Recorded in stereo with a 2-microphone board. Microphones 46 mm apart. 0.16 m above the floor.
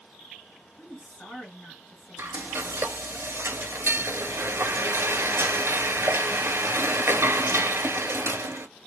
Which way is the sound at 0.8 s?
40° left (ahead or behind).